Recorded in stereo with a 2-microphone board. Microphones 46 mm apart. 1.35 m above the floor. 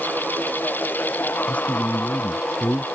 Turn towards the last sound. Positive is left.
turn(degrees=35)  # may be behind; listen again after turning